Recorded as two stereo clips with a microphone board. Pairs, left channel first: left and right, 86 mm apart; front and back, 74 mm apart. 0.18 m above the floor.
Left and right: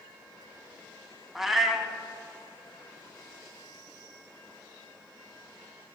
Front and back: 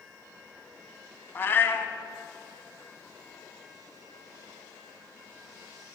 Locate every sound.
1.4 s a cat meowing: 5° right, 0.5 m